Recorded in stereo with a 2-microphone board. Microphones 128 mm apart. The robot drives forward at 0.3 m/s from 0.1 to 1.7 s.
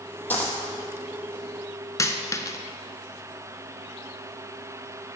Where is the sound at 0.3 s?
15° left (ahead or behind), 1.4 m.